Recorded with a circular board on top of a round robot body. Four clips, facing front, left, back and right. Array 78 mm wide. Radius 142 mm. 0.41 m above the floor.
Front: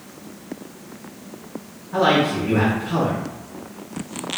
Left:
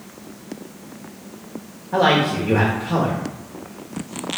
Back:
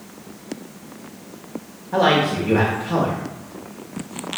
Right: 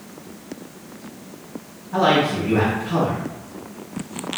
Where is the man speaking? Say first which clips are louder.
Left 1 dB, back 1 dB; 130° left, 1.9 m.